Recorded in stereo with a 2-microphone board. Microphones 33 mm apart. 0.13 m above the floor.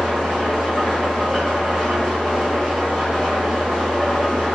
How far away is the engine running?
About 1.5 m.